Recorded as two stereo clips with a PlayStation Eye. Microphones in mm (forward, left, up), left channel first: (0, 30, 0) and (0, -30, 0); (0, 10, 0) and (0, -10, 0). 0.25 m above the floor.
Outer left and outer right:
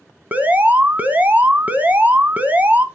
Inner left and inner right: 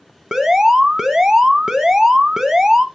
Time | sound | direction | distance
0.3 | an alarm | 25° right (ahead or behind) | 1.2 m